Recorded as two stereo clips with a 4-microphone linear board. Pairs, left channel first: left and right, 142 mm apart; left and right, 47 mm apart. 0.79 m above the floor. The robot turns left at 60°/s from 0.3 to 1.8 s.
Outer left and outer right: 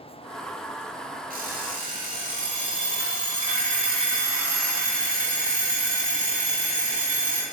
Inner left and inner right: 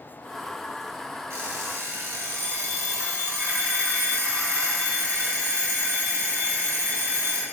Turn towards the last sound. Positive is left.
turn(degrees=-105)